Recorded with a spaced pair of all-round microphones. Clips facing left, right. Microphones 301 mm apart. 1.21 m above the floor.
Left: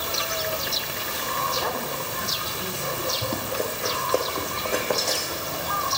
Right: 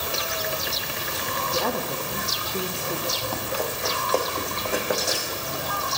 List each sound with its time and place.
1.5 s a woman speaking: 85° right, 1.8 m
3.2 s running footsteps: 30° left (ahead or behind), 3.5 m; by 5.6 s 15° right (ahead or behind), 4 m